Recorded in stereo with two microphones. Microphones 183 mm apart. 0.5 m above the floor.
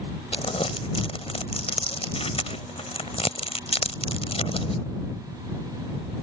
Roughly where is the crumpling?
Left.